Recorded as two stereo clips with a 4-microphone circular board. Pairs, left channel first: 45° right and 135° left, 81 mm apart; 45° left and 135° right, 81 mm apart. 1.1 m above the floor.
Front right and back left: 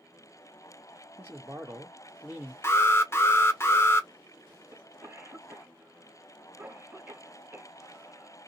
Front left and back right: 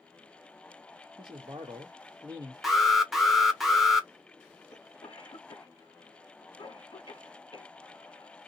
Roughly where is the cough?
Left.